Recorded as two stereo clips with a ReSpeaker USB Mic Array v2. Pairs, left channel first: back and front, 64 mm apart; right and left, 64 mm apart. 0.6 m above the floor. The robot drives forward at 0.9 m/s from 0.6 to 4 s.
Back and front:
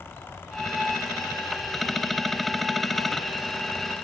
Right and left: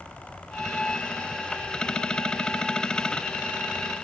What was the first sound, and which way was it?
Only background noise.